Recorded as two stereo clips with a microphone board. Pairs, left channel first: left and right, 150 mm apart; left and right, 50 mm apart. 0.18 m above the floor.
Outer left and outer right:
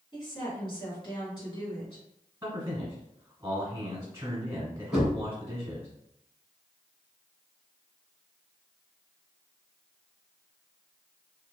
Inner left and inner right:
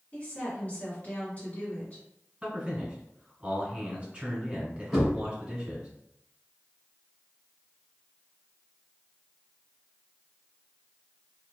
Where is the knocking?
5° right (ahead or behind), 1.4 m.